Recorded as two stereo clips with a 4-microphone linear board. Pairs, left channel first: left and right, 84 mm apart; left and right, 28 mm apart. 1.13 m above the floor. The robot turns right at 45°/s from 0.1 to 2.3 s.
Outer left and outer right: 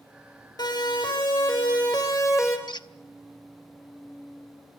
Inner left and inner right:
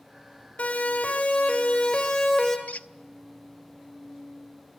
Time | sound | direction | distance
0.6 | a siren | 55° left (ahead or behind) | 6.5 m
2.7 | a squeak | 65° left (ahead or behind) | 0.8 m